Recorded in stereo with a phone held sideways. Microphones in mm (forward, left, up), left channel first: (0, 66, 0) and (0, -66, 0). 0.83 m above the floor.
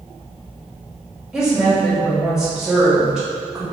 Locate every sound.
1.3 s a woman speaking: 5° right (ahead or behind), 1.4 m